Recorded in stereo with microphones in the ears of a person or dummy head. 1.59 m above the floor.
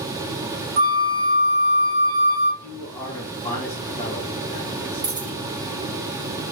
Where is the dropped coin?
10° right (ahead or behind), 2 m.